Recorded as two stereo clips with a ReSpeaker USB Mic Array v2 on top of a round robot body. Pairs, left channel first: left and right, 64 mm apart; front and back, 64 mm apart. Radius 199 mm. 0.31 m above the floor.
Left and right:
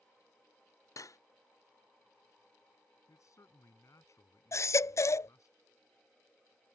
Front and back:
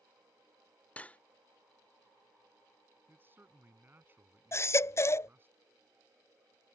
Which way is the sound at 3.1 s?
125° left.